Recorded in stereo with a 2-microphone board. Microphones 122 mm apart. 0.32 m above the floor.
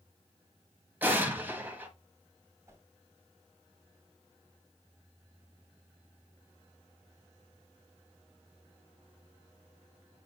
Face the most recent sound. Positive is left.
turn(degrees=-25)  # may be behind; listen again after turning